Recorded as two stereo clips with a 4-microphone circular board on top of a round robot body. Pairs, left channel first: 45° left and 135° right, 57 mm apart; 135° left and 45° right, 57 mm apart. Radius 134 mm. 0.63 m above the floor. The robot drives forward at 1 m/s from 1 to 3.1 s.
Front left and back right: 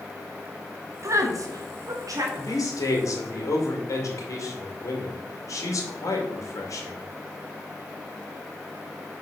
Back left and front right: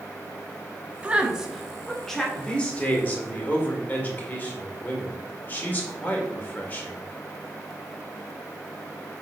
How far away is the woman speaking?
About 1.4 m.